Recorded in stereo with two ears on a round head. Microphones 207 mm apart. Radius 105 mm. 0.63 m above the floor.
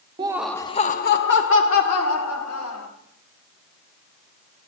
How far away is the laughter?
About 0.5 m.